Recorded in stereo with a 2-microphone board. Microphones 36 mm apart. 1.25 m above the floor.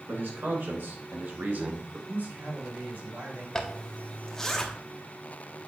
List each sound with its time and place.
0.1 s a man speaking: 75° right (ahead or behind), 2.5 m; by 2.0 s 40° right (ahead or behind), 1.4 m
2.1 s a man speaking: 60° right (ahead or behind), 4.5 m
3.5 s a zipper: 15° left (ahead or behind), 0.9 m